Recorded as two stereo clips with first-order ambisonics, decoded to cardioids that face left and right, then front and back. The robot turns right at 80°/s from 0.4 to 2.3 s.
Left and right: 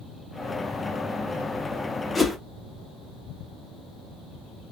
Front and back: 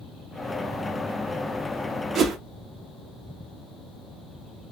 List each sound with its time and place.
2.1 s a whoosh: 165° left, 0.6 m; by 2.4 s 175° left, 0.6 m